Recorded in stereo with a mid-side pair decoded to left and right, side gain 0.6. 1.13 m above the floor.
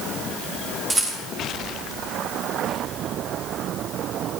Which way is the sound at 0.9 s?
25° right.